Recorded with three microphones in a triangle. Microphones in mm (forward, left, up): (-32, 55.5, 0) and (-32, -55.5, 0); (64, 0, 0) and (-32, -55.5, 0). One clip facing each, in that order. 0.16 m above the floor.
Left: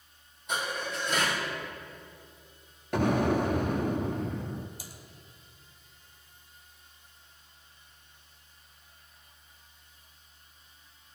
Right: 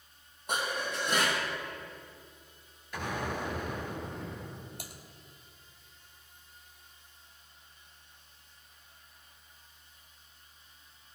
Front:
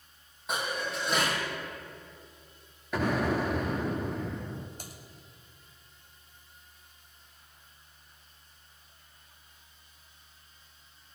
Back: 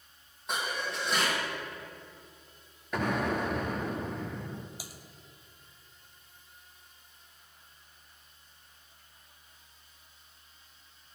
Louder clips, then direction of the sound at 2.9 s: Left 10 dB, front 2 dB; 120° left.